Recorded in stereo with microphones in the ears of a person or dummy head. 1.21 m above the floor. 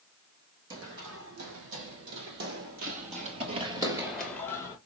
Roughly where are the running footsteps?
Right.